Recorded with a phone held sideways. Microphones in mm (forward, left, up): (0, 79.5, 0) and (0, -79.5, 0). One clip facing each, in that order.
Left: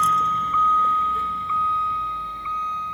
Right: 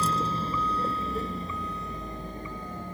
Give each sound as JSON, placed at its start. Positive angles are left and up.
{"t": 0.0, "sound": "a vehicle", "side_deg": -30}